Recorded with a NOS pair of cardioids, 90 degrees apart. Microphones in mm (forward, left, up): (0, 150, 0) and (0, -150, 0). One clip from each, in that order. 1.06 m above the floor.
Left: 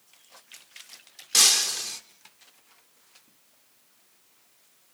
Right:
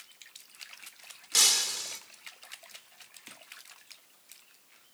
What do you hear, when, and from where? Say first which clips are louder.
1.3 s breaking glass: left 4 dB; 25° left, 1.3 m